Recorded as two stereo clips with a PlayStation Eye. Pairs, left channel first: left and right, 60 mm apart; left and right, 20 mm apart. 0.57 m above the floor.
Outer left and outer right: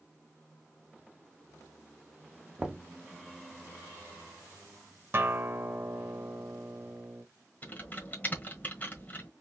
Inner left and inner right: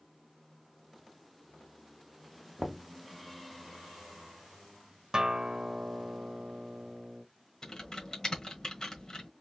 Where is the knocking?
15° right (ahead or behind), 0.6 m.